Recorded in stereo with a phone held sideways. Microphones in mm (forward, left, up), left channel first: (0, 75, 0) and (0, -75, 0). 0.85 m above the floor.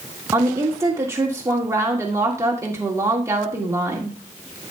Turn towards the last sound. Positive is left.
turn(degrees=-20)  # may be behind; listen again after turning